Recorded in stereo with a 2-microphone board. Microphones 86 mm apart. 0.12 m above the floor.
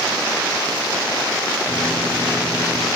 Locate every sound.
1.7 s a microwave: centre (ahead or behind), 3 m